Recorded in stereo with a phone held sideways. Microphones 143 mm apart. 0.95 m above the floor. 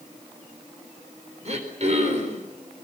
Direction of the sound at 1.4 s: 50° right (ahead or behind).